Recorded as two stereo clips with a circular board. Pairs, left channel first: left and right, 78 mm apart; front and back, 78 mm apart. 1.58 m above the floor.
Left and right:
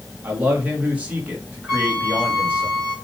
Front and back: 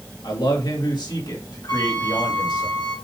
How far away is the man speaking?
About 2.5 m.